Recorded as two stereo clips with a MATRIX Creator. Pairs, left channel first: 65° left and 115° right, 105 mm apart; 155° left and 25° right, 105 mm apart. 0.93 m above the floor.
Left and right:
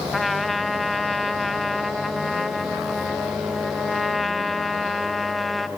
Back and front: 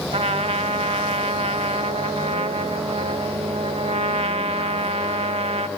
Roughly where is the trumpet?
Ahead right.